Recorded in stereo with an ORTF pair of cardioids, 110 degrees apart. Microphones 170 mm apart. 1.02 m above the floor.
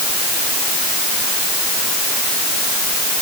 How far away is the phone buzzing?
No phone buzzing in this recording.